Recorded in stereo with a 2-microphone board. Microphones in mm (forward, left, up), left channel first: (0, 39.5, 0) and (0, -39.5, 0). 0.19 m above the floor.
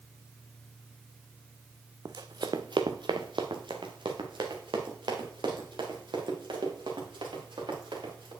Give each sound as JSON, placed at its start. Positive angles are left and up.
{"t": 2.0, "sound": "running footsteps", "side_deg": -55, "distance_m": 0.6}